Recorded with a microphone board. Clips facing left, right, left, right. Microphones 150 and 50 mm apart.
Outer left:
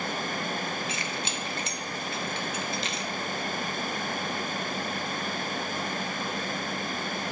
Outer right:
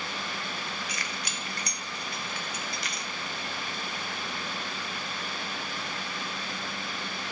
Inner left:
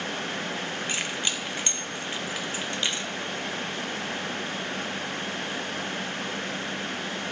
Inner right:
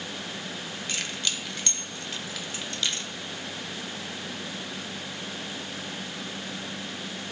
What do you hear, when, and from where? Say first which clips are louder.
0.9 s keys jangling: outer left 4 dB, inner right 1 dB; 25° left (ahead or behind), 0.9 m